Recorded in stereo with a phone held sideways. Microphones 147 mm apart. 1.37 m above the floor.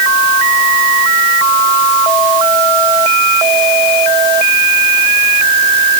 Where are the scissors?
No scissors in this recording.